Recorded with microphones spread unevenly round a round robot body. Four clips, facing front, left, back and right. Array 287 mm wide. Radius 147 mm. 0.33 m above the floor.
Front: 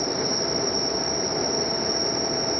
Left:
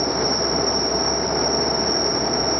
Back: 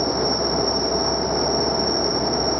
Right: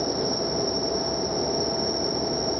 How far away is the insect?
About 8.5 m.